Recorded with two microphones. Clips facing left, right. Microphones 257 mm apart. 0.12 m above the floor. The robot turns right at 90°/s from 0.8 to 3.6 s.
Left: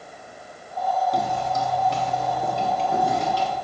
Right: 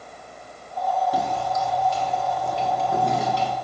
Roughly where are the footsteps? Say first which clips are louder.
Even; centre.